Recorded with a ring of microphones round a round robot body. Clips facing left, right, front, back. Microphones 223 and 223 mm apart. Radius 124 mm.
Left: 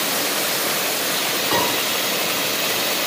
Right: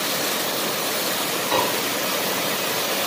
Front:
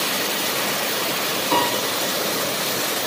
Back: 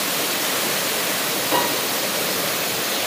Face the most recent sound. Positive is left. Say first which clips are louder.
# even, front 1 dB
turn(degrees=40)